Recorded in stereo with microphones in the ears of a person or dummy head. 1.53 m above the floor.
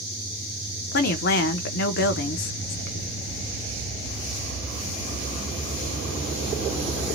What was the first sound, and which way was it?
A woman speaking, 55° left (ahead or behind).